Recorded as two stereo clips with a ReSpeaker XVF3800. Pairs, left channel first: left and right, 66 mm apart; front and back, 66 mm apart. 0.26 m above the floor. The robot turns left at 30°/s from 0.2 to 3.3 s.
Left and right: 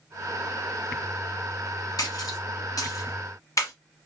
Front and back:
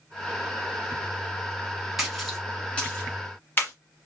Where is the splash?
95° left, 1.4 m; by 3.7 s 55° left, 1.4 m.